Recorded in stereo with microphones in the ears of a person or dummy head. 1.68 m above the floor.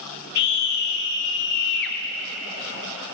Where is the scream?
60° left (ahead or behind), 1.1 m.